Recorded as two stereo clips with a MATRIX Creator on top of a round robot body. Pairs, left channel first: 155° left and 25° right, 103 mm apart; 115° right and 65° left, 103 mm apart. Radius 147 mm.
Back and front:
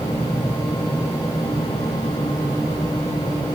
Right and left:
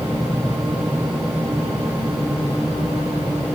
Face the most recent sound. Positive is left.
No sound to turn to.